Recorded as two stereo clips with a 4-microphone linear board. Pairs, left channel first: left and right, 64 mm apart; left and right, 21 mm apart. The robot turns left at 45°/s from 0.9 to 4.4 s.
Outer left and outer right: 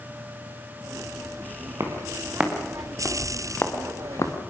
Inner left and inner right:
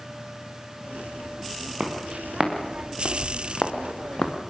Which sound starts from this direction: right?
Footsteps, at 1.8 s.